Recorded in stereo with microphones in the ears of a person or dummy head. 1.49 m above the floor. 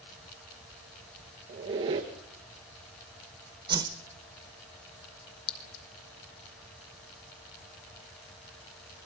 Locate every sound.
1.5 s a squeak: 25° right (ahead or behind), 1.6 m
3.7 s a whoosh: 20° right (ahead or behind), 1.1 m
5.5 s a clink: 60° left (ahead or behind), 1.3 m